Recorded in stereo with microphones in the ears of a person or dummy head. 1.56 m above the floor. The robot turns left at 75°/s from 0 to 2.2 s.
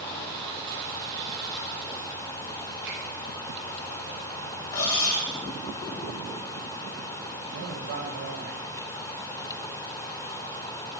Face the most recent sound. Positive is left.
turn(degrees=-75)  # may be behind; listen again after turning